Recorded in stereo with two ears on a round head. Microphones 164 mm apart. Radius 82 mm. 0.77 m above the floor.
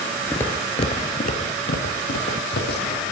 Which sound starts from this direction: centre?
Footsteps, at 0.3 s.